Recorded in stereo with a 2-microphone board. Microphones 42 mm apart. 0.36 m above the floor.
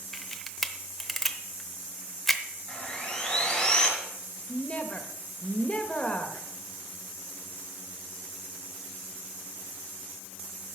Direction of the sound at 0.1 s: 5° left (ahead or behind).